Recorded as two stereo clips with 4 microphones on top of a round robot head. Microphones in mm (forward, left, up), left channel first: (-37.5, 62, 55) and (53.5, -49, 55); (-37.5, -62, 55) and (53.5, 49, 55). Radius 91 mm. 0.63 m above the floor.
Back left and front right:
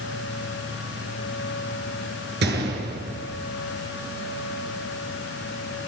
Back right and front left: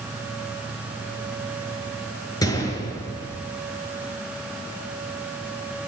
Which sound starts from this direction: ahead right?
A gunshot, at 2.4 s.